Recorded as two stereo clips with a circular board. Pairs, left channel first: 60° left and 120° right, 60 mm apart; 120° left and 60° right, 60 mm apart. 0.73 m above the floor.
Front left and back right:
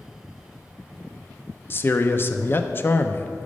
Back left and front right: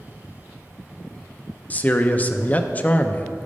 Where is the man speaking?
75° left, 0.5 m.